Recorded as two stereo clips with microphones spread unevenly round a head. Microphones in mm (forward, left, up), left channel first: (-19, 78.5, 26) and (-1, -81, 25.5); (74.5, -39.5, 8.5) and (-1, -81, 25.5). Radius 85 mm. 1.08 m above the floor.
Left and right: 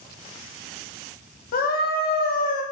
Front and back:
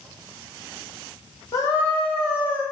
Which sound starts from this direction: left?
A scream, at 1.5 s.